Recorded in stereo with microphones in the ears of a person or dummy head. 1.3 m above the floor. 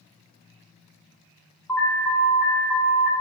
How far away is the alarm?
About 0.6 m.